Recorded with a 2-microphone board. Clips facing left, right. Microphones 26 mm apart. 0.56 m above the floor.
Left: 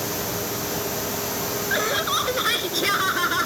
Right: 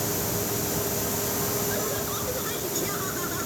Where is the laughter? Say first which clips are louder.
Left 7 dB; 65° left (ahead or behind); by 3.5 s 60° left (ahead or behind).